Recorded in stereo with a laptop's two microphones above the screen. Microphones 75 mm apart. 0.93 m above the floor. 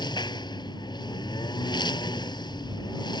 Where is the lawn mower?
80° left.